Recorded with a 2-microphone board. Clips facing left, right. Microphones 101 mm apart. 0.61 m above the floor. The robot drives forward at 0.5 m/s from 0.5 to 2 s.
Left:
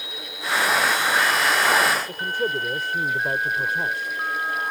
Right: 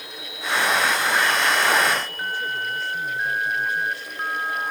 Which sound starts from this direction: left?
A man speaking, at 2.1 s.